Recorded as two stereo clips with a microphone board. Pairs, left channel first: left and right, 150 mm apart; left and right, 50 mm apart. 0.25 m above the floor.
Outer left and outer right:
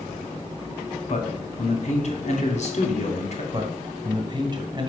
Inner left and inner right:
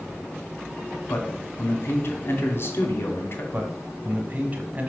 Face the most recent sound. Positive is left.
turn(degrees=-30)  # may be behind; listen again after turning